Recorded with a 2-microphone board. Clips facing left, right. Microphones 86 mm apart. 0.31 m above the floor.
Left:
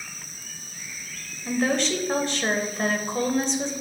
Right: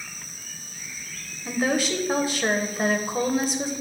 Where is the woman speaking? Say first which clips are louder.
Even; 10° right (ahead or behind), 1.0 m.